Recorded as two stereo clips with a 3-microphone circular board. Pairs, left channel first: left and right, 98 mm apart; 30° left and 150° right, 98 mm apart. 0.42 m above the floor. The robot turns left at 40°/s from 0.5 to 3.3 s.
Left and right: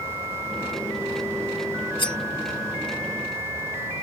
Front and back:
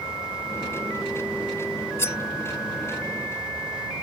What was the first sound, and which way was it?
Cutlery clinking, 90° left.